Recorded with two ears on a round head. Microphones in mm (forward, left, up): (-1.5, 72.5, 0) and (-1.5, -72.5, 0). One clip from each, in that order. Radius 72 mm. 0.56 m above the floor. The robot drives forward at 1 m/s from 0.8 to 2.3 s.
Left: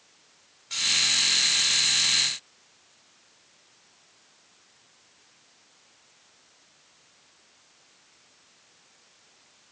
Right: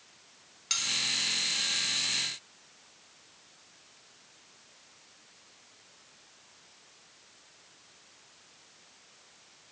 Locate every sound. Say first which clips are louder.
0.7 s cutlery clinking: left 1 dB; 75° right (ahead or behind), 2.0 m; by 0.8 s 70° right (ahead or behind), 2.0 m